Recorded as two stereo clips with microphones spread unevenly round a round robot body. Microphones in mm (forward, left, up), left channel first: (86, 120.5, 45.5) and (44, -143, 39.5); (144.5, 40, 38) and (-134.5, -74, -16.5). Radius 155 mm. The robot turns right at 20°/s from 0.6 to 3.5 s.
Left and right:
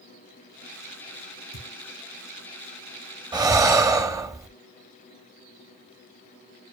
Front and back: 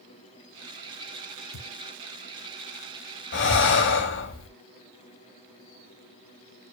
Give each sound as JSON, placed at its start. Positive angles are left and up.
{"t": 1.5, "sound": "a thud", "azimuth_deg": 45, "distance_m": 3.0}
{"t": 3.3, "sound": "breathing", "azimuth_deg": -25, "distance_m": 0.7}